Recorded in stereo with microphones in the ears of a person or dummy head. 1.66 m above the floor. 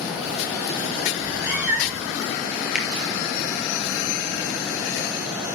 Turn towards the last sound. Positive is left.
turn(degrees=-5)  # may be behind; listen again after turning